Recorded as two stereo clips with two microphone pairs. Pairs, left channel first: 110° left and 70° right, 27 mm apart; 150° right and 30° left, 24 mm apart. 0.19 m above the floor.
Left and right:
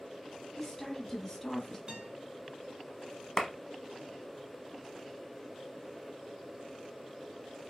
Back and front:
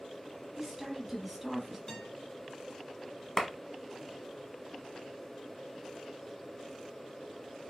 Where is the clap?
150° left, 0.9 m.